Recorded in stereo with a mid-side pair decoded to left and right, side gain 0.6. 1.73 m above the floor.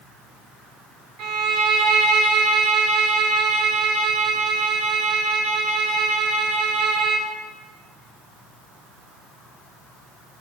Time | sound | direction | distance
1.2 | a violin | 65° right | 0.5 m